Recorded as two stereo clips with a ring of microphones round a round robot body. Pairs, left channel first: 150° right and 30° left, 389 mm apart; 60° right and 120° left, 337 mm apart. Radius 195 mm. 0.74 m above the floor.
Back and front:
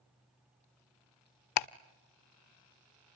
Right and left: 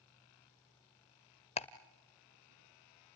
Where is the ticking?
130° right, 0.5 m.